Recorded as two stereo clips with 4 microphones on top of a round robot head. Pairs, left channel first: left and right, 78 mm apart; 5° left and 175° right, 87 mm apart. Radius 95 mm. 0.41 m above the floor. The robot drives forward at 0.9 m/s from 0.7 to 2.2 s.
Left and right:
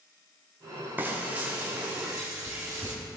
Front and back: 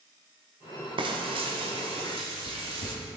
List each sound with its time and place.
1.0 s frying: 160° right, 1.2 m; by 2.9 s 170° right, 2 m